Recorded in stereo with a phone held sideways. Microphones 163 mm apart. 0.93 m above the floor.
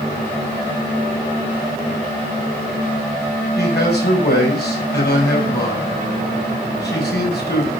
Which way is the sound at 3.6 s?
80° left.